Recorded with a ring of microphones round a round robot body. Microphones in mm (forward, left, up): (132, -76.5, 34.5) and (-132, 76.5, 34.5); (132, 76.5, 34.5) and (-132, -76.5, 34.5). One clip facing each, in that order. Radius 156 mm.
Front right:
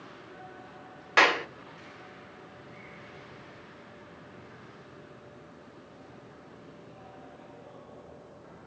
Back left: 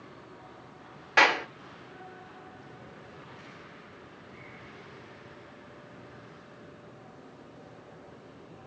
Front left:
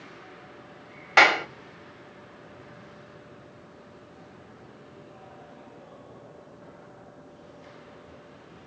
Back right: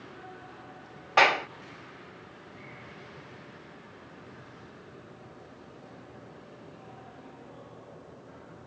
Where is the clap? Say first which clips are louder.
Front right 1 dB, front left 2 dB; 45° left, 1.1 m.